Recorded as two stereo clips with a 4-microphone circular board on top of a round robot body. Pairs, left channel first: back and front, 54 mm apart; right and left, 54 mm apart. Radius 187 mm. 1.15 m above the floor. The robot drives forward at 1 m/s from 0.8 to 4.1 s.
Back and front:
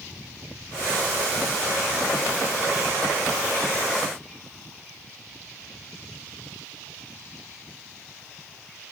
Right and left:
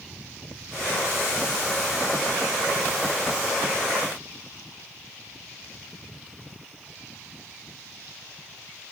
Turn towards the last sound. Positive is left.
No sound to turn to.